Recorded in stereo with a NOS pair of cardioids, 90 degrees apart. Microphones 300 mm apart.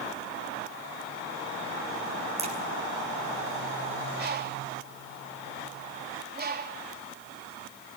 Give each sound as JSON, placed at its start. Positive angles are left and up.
{"t": 2.4, "sound": "a crack", "azimuth_deg": -20, "distance_m": 7.5}
{"t": 4.2, "sound": "a bird", "azimuth_deg": -30, "distance_m": 4.0}